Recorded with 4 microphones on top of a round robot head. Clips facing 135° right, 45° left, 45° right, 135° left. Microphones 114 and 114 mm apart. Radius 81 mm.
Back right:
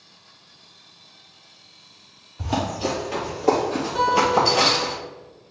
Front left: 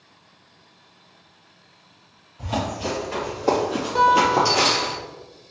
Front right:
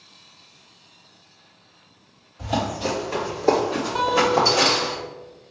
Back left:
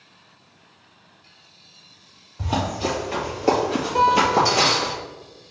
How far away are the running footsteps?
About 1.4 m.